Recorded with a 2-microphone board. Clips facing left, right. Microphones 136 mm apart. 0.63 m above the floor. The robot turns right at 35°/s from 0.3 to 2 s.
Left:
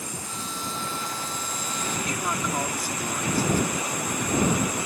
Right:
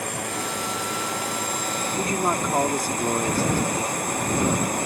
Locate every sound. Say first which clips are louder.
0.0 s a drone: right 7 dB; 110° right; by 4.9 s 50° right
2.0 s a man speaking: right 7 dB; 40° right (ahead or behind)